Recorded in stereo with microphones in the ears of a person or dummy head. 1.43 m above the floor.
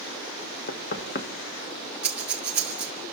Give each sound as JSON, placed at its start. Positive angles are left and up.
{"t": 0.7, "sound": "knocking", "side_deg": 50, "distance_m": 1.6}
{"t": 2.0, "sound": "breathing", "side_deg": -5, "distance_m": 0.6}